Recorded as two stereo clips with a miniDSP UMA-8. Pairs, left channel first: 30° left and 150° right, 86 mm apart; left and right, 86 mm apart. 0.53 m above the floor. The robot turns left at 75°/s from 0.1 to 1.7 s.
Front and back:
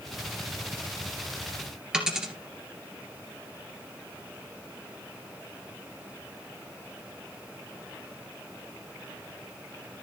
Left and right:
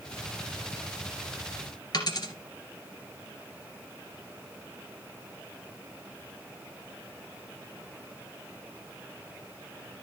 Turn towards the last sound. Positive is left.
turn(degrees=130)